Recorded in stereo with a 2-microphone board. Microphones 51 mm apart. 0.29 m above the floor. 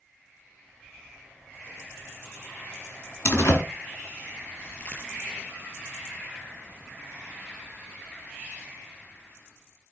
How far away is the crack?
About 4.5 m.